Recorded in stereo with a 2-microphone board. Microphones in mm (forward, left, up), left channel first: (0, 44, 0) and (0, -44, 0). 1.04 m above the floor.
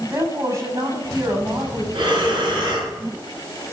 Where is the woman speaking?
40° right (ahead or behind), 6 m.